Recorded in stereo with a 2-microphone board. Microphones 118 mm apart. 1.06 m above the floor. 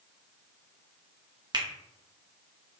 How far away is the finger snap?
About 0.7 m.